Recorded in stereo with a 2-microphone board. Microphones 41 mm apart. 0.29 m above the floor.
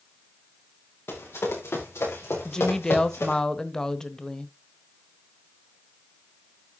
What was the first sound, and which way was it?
Running footsteps, 70° left (ahead or behind).